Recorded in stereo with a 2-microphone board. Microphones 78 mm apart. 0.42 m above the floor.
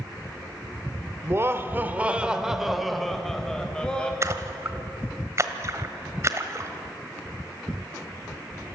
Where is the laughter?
35° right (ahead or behind), 1.2 m; by 4.1 s 10° left (ahead or behind), 2.5 m.